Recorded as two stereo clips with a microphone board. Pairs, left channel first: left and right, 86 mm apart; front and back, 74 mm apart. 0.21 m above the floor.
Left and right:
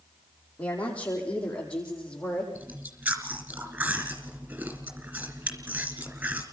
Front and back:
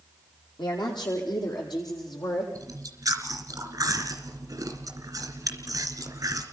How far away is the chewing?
About 3 m.